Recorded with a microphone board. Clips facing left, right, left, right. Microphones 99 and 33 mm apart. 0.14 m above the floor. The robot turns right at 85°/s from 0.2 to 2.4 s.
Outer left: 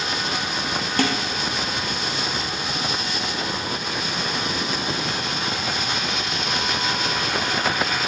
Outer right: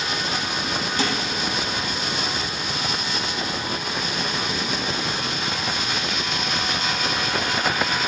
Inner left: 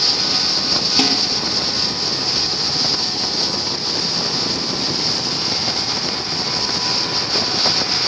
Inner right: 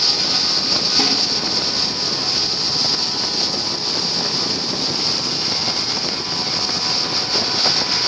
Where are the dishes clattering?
60° left (ahead or behind), 2.5 m; by 1.2 s 70° left (ahead or behind), 2.5 m.